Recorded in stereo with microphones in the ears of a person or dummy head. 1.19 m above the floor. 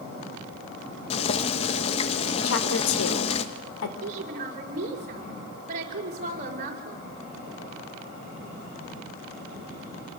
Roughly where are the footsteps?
I don't hear footsteps.